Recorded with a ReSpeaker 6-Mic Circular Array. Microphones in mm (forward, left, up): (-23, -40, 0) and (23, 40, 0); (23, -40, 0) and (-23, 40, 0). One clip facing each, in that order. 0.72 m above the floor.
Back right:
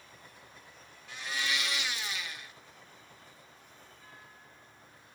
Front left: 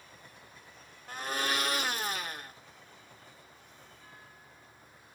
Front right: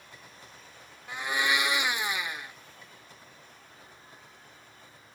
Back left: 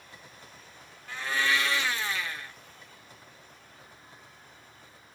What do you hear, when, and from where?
1.1 s a blender: 15° left, 0.6 m